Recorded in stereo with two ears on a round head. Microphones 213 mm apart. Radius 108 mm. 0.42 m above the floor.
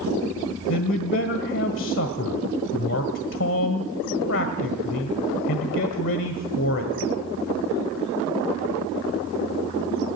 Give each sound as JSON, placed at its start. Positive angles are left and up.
{"t": 0.7, "sound": "a man speaking", "side_deg": 55, "distance_m": 1.6}